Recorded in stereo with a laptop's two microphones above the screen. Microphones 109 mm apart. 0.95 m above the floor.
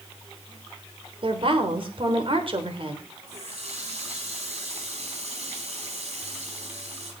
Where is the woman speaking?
55° right (ahead or behind), 3.5 m.